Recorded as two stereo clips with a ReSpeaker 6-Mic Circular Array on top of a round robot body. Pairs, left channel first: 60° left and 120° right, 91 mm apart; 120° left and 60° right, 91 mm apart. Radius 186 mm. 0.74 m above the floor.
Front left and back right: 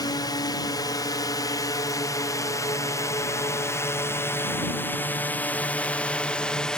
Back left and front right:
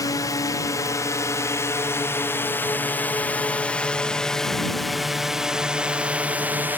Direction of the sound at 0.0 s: 85° left.